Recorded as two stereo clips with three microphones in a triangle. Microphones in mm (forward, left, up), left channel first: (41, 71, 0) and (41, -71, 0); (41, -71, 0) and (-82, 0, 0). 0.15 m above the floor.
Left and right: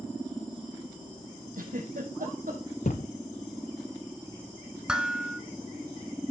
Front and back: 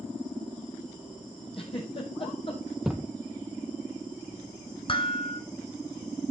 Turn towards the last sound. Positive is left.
turn(degrees=-10)